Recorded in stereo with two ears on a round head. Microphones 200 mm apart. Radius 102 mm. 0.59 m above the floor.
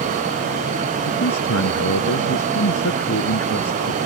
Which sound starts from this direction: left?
A man speaking, at 1.1 s.